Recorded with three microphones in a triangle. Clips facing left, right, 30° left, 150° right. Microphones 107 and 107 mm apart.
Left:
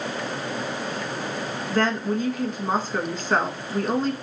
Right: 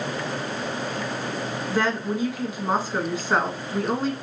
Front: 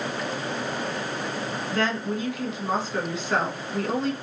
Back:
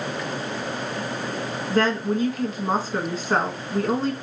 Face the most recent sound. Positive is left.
turn(degrees=-165)